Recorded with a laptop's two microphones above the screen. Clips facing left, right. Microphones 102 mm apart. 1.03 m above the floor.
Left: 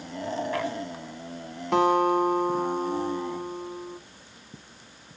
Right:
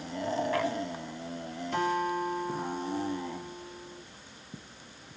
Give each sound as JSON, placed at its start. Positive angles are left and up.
{"t": 1.7, "sound": "a guitar", "side_deg": 70, "distance_m": 1.8}